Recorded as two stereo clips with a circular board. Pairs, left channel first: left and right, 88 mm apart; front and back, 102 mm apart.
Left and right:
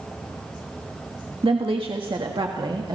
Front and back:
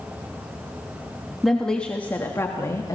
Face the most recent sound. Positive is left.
turn(degrees=-55)